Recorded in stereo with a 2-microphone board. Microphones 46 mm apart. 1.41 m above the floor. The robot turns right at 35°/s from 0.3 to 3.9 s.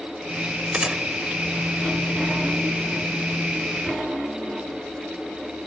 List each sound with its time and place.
0.7 s a gunshot: 20° right (ahead or behind); by 1.0 s 15° right (ahead or behind)